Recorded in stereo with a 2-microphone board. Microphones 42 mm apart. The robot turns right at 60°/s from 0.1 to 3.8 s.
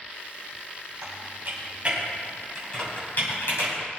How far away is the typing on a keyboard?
About 6.5 m.